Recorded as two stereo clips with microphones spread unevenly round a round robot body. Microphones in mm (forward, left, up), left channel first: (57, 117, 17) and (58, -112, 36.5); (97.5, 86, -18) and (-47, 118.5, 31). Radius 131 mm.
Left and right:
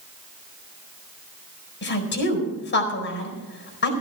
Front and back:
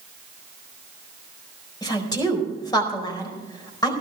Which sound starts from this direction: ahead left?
A woman speaking, at 1.8 s.